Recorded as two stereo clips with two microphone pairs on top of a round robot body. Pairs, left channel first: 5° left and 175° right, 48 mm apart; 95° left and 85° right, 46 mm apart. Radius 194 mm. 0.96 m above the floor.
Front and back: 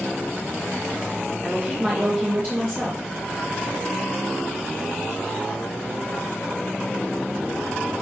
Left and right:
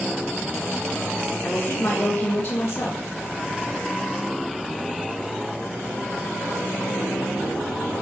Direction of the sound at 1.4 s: 135° left.